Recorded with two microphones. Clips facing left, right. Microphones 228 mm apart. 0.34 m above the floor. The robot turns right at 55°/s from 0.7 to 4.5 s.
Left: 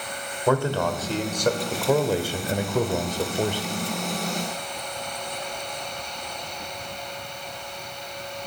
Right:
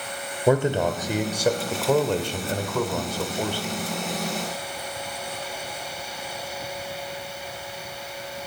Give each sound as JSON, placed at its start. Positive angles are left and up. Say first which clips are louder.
{"t": 0.5, "sound": "a man speaking", "louder": "right 2 dB", "side_deg": -20, "distance_m": 0.9}